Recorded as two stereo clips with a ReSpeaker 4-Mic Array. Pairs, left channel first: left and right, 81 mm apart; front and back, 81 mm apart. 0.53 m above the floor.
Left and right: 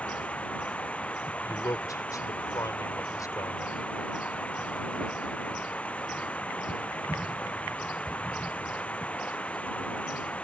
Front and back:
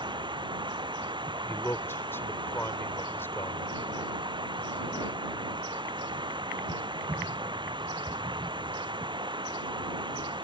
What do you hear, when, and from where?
0.0 s running water: 165° left
1.4 s a man speaking: 60° left